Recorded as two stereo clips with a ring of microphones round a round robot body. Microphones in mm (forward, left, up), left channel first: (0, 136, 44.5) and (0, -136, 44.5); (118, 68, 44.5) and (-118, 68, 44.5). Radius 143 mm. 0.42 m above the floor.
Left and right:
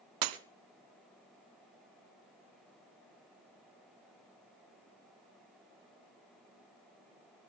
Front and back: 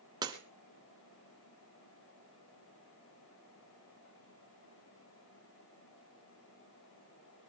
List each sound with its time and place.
0.2 s breaking glass: 105° right, 1.2 m